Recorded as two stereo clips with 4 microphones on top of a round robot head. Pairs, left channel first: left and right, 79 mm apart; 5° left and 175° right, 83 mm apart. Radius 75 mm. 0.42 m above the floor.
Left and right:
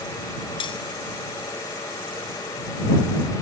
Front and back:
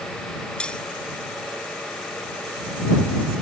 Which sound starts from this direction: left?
Cutlery clinking, at 0.6 s.